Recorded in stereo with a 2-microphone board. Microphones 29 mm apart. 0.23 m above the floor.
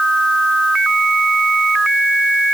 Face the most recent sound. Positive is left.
No sound to turn to.